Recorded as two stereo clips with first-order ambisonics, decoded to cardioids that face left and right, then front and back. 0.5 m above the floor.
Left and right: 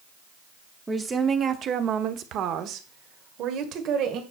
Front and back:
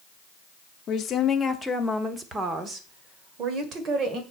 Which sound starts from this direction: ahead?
A woman speaking, at 0.9 s.